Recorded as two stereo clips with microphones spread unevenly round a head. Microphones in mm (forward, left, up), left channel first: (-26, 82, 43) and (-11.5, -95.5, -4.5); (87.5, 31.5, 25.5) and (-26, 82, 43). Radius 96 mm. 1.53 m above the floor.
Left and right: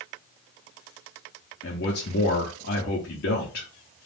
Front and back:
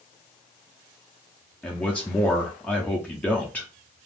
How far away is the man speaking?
About 0.7 m.